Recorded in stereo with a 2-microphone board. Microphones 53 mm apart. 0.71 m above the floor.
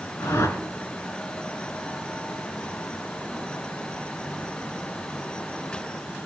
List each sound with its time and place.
0.2 s a whoosh: 65° left (ahead or behind), 1.6 m